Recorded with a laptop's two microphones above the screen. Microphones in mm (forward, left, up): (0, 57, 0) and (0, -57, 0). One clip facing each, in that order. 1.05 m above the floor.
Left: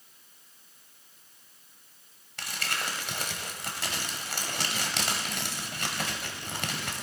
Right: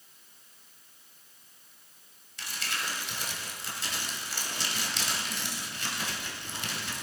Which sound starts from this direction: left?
Crumpling, at 2.4 s.